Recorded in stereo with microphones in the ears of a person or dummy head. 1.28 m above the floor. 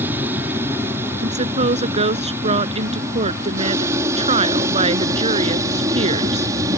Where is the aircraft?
15° right (ahead or behind); by 6.8 s 20° right (ahead or behind).